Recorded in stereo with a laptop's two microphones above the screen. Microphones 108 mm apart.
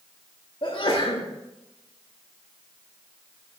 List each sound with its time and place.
0.6 s a sneeze: 50° left (ahead or behind), 2 m